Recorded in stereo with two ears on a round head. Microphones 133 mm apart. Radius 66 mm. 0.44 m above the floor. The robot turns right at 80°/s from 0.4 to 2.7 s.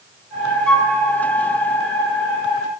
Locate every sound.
0.7 s a flute: 5° left (ahead or behind), 1.1 m; by 0.9 s 25° left (ahead or behind), 1.1 m